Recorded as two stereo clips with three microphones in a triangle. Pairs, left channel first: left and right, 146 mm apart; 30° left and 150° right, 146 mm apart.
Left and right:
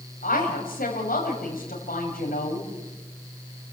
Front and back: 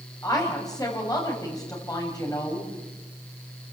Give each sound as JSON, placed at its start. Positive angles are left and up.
{"t": 0.2, "sound": "a woman speaking", "azimuth_deg": 95, "distance_m": 7.0}